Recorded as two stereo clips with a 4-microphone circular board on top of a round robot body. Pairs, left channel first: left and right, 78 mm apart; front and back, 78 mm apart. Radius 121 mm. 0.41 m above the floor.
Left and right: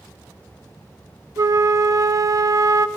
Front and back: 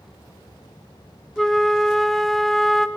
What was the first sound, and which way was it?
A flute, 85° right.